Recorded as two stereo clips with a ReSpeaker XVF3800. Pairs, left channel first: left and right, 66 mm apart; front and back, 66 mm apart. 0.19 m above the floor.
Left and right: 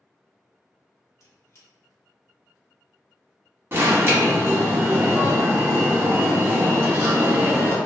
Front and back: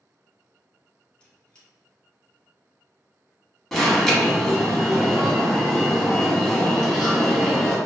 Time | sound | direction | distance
1.2 | a squeak | 65° left | 0.9 m
3.7 | an alarm | 80° right | 0.8 m